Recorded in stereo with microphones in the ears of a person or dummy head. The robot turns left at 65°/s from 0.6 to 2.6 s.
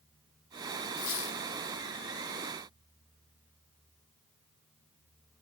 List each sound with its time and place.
1.0 s a squeak: 65° left (ahead or behind), 1.2 m; by 1.4 s 70° left (ahead or behind), 1.2 m